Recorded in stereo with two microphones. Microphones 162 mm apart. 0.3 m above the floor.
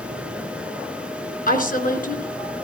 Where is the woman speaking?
60° left (ahead or behind), 3 m.